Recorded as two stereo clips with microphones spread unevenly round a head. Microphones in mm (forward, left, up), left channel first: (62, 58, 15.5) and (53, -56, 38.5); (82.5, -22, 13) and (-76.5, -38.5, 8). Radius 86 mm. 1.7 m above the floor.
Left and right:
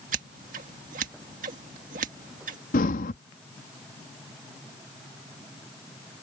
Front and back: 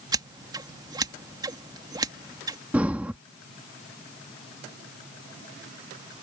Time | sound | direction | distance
0.1 | scissors | 110° right | ?
2.7 | breathing | 105° left | ?